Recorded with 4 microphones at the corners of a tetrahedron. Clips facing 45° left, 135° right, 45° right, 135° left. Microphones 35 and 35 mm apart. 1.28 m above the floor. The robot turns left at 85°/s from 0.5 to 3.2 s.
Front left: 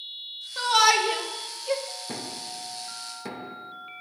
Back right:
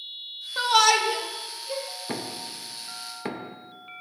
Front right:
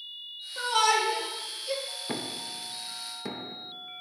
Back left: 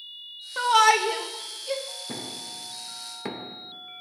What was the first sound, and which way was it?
A shout, 155° left.